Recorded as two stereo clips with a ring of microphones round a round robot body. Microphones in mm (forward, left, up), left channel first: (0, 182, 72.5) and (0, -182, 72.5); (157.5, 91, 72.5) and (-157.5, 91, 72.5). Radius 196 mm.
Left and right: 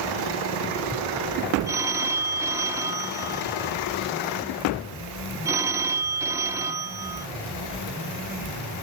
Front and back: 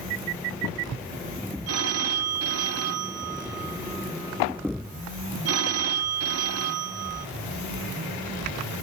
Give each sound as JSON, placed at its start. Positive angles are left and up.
{"t": 1.7, "sound": "a phone ringing", "azimuth_deg": -170, "distance_m": 0.6}